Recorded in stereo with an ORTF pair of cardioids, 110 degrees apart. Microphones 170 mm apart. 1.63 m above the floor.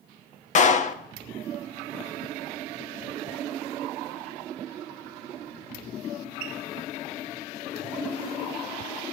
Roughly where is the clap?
Ahead left.